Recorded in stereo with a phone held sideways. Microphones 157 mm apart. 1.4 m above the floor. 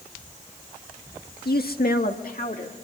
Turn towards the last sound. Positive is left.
turn(degrees=60)  # may be behind; listen again after turning